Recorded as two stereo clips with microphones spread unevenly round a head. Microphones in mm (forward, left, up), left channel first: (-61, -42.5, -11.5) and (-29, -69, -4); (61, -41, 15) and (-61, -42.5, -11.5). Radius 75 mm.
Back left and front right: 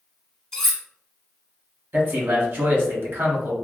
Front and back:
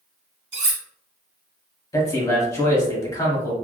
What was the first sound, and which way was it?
Cutlery clinking, 140° right.